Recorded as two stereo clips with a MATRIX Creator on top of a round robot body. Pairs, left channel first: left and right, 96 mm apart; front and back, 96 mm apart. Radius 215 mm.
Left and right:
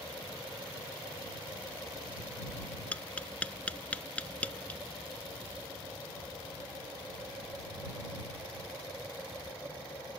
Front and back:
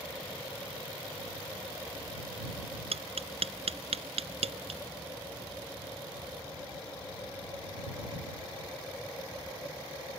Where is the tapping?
170° left.